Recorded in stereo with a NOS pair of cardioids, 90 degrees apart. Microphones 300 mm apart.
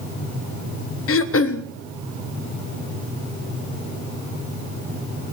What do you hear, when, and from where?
1.1 s throat clearing: 50° left, 0.8 m